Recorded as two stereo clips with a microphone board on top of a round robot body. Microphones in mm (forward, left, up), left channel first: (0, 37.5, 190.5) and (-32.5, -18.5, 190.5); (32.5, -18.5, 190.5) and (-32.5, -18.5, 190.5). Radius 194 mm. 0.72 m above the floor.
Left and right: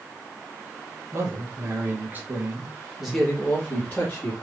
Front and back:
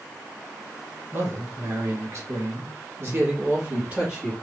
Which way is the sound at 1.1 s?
140° right.